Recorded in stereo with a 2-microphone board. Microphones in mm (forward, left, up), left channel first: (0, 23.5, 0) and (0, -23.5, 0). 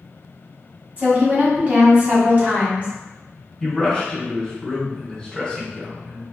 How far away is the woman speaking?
About 1.4 m.